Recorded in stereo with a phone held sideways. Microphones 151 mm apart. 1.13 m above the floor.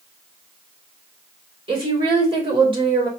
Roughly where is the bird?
No bird in this recording.